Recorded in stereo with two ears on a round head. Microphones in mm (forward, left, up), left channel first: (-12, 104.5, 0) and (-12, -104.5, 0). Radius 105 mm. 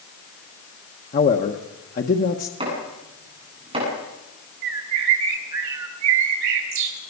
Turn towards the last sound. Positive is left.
turn(degrees=-80)